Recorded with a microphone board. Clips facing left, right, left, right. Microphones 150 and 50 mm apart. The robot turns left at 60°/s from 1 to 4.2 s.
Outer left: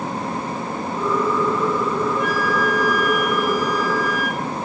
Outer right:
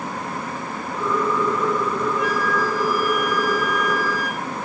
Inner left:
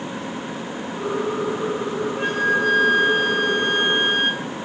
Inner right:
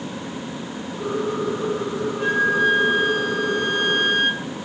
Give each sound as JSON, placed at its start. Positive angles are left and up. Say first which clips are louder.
{"t": 2.2, "sound": "a flute", "louder": "outer left 1 dB, inner right 2 dB", "azimuth_deg": 130, "distance_m": 3.0}